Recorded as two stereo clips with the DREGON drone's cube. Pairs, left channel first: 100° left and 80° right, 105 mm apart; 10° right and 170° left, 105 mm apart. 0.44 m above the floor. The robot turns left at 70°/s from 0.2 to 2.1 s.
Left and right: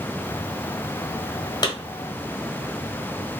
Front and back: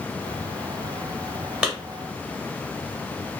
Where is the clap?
95° left, 1.3 m; by 1.7 s 85° left, 1.3 m.